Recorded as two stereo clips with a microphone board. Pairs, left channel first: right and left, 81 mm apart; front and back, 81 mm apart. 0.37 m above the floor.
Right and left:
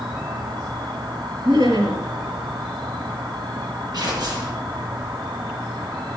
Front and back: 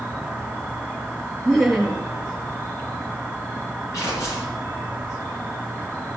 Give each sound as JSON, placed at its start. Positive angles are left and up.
{"t": 0.0, "sound": "an insect", "azimuth_deg": 70, "distance_m": 3.0}
{"t": 1.4, "sound": "laughter", "azimuth_deg": 90, "distance_m": 5.5}
{"t": 3.9, "sound": "tearing paper", "azimuth_deg": 55, "distance_m": 6.0}